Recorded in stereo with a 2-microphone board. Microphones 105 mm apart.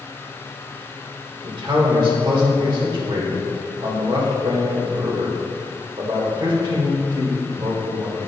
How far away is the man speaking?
About 1.7 m.